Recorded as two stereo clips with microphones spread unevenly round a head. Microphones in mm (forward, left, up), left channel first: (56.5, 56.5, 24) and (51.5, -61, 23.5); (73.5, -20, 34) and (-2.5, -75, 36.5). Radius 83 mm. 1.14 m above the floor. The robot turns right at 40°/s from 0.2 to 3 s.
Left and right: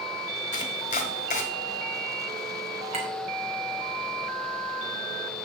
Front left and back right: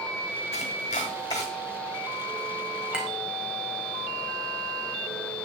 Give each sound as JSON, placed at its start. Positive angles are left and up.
{"t": 0.5, "sound": "chopping", "azimuth_deg": 70, "distance_m": 1.6}
{"t": 2.9, "sound": "a clink", "azimuth_deg": -65, "distance_m": 4.0}